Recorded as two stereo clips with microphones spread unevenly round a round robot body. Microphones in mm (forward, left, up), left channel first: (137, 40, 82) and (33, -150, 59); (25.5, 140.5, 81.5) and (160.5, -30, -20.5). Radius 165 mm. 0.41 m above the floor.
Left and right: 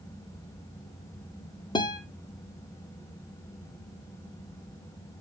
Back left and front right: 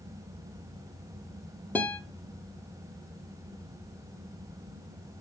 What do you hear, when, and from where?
1.8 s a guitar: straight ahead, 1.2 m